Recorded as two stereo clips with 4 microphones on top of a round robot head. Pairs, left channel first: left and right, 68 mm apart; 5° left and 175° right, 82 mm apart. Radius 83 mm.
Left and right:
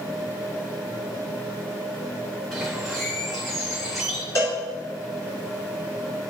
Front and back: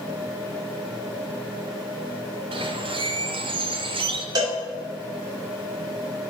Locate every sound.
2.5 s a bird: straight behind, 1.0 m
4.3 s a cowbell: 145° left, 3 m